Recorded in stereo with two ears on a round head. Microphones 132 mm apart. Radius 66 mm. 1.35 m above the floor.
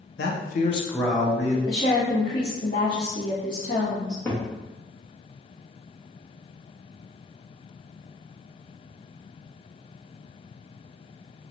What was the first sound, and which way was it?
A man speaking, 85° left.